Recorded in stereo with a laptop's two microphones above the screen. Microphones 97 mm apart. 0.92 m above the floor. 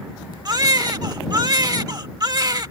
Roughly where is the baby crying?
Right.